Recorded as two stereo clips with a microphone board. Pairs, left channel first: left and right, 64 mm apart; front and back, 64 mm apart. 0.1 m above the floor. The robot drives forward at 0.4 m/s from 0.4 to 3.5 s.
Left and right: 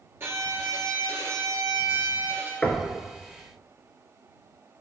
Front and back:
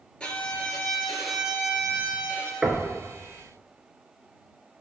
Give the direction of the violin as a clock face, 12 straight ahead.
2 o'clock.